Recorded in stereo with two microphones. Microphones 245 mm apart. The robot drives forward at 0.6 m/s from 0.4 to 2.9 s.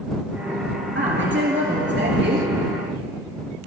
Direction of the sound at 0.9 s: 55° right (ahead or behind).